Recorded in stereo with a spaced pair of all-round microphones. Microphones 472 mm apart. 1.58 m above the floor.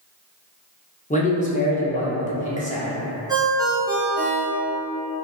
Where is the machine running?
I don't hear a machine running.